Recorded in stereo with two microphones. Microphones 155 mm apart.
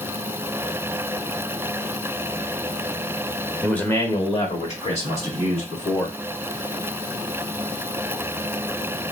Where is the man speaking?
5° left (ahead or behind), 0.9 m; by 6.2 s 55° left (ahead or behind), 2.5 m.